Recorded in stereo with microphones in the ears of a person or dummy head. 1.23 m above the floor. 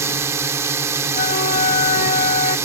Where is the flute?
40° left (ahead or behind).